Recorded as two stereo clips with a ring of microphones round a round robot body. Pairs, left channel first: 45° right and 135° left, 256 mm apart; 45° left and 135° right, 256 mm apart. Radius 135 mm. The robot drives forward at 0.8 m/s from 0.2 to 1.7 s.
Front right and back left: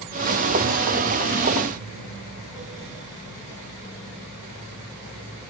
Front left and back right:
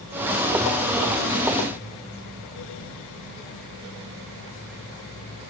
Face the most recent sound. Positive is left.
No sound to turn to.